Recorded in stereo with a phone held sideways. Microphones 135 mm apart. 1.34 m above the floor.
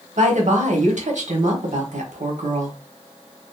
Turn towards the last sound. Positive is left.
turn(degrees=-65)  # may be behind; listen again after turning